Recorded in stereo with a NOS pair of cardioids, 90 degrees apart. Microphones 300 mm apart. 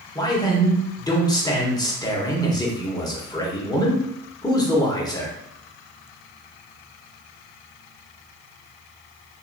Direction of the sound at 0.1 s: 15° left.